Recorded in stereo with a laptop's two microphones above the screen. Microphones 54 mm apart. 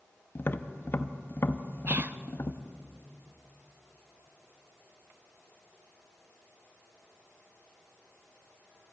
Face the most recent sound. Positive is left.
turn(degrees=-40)  # may be behind; listen again after turning